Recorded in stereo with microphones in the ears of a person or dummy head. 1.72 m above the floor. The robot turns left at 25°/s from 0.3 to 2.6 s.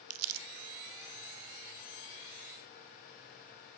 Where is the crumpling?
65° right (ahead or behind), 0.7 m.